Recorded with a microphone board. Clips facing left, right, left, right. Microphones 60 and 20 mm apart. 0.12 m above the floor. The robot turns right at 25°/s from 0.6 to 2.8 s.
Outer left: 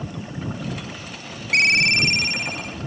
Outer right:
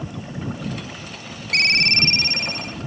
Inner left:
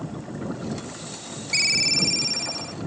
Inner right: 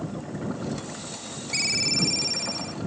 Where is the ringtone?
145° left; by 2.8 s straight behind.